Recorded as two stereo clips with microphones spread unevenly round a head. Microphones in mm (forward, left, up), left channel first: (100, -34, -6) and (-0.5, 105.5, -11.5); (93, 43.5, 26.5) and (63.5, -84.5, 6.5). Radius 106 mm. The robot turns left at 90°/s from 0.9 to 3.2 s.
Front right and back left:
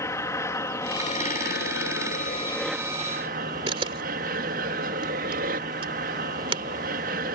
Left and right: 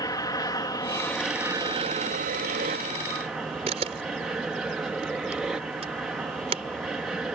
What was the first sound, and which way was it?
An aircraft, 20° left.